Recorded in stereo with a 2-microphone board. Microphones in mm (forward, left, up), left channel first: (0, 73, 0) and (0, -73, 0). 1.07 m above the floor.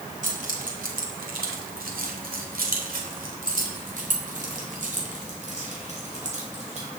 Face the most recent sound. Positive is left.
turn(degrees=-50)  # may be behind; listen again after turning